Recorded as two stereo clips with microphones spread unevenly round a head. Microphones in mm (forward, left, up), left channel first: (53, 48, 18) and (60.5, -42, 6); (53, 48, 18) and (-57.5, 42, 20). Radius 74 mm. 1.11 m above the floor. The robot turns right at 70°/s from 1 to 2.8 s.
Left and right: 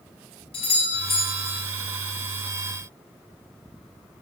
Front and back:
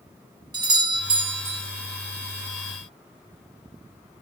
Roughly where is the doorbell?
Behind left.